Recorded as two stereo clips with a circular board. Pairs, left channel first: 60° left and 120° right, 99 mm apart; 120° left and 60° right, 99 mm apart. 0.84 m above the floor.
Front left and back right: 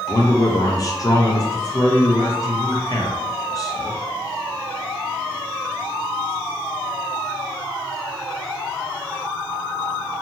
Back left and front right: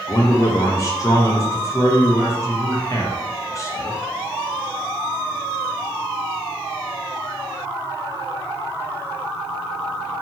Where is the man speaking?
85° left, 0.5 m.